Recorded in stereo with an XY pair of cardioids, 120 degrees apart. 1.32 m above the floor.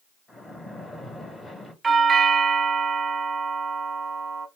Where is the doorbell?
25° right, 0.7 m.